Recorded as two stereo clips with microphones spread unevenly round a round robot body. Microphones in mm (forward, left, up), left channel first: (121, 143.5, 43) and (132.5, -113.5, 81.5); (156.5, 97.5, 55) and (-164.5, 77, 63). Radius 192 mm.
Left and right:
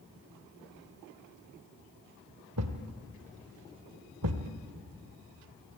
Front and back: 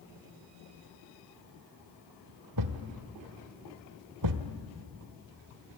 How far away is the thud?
About 1.2 m.